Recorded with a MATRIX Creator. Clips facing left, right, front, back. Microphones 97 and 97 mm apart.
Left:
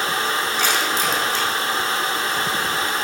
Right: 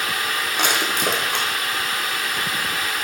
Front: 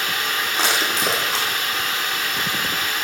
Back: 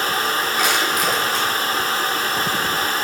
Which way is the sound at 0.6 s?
60° right.